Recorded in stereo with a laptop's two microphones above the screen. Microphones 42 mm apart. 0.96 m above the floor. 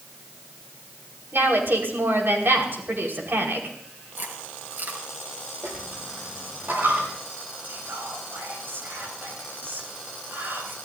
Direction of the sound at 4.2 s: 50° right (ahead or behind).